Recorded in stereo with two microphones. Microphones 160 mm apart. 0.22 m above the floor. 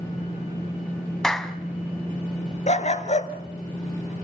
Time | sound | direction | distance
1.2 | a clap | 5° left (ahead or behind) | 1.1 m
2.7 | a dog barking | 50° left (ahead or behind) | 1.2 m